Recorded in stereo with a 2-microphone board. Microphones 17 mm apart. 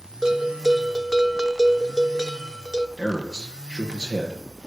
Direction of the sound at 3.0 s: 35° left (ahead or behind).